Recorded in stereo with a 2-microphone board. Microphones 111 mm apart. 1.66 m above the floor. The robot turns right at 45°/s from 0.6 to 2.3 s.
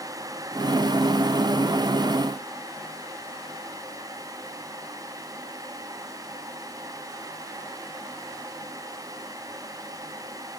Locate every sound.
Only background noise.